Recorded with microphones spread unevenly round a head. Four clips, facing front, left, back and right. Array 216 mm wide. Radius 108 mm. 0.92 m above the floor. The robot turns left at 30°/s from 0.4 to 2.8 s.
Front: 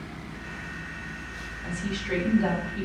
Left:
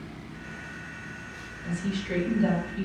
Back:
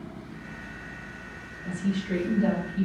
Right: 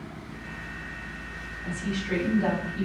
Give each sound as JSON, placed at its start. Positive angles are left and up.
{"t": 1.6, "sound": "a woman speaking", "azimuth_deg": -15, "distance_m": 1.7}